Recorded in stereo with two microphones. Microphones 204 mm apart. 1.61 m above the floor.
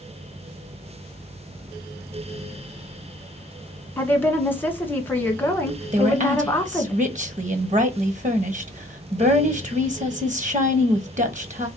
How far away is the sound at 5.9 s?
About 1.0 m.